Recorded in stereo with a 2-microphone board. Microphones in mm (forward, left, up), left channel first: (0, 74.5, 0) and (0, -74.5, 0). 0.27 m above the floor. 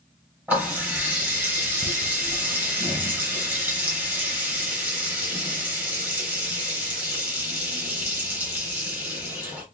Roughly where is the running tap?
Centre.